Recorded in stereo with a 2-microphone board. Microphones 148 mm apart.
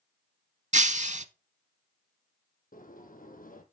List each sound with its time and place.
0.7 s breaking glass: 60° right (ahead or behind), 0.6 m
2.7 s a sliding door: 85° left, 2 m